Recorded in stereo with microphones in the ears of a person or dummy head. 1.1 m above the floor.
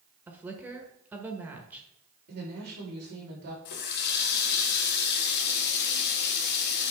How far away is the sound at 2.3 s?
About 4.5 m.